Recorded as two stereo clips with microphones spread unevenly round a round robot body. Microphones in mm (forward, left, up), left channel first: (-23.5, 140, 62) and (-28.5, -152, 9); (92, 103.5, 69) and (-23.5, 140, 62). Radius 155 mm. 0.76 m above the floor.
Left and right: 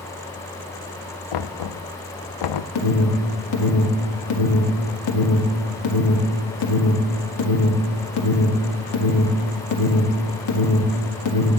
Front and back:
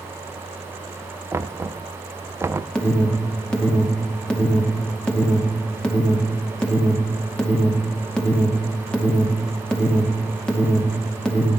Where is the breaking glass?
No breaking glass in this recording.